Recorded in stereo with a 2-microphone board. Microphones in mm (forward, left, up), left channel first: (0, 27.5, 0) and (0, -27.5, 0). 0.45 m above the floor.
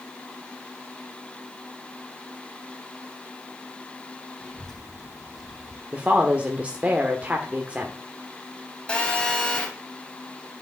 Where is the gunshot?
No gunshot in this recording.